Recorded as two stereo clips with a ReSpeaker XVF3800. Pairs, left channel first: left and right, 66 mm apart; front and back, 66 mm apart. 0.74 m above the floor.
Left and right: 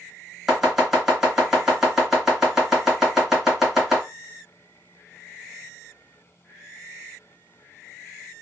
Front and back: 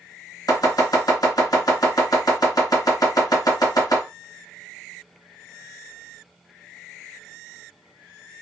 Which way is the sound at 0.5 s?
10° right.